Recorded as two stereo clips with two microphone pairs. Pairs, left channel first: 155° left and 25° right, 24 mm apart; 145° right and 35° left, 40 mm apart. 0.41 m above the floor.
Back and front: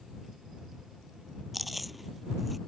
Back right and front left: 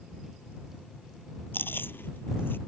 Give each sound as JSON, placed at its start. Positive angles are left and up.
{"t": 1.5, "sound": "chewing", "azimuth_deg": -115}